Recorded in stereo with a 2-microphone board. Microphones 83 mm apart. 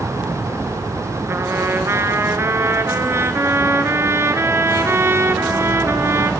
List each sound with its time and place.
1.3 s a trumpet: 35° right (ahead or behind), 1.4 m